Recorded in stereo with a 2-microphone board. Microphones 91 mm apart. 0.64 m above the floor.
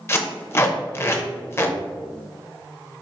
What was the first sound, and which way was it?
Tape being pulled, 30° left (ahead or behind).